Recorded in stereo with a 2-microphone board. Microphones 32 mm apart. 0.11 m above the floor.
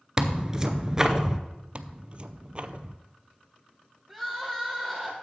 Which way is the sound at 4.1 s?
5° left (ahead or behind).